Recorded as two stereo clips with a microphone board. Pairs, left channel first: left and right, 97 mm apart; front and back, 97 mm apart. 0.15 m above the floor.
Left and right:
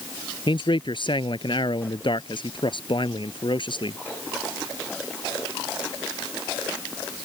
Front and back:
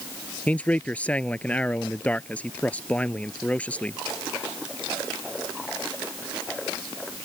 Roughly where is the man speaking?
Left.